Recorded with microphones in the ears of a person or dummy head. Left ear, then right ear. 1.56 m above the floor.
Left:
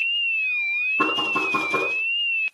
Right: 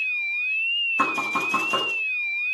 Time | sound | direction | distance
1.0 | knocking | 60° right (ahead or behind) | 8 m